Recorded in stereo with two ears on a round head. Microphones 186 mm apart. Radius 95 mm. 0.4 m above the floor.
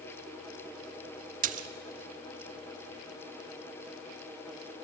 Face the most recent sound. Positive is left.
turn(degrees=-40)  # may be behind; listen again after turning